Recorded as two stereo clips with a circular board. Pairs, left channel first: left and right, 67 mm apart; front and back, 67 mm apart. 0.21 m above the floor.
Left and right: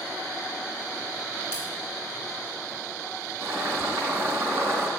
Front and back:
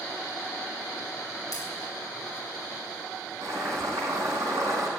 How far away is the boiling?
About 5 m.